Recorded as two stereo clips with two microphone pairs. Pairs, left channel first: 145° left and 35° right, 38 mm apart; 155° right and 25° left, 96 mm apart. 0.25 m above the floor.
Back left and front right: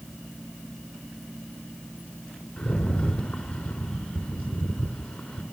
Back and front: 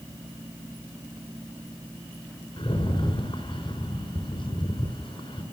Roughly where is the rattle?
Behind.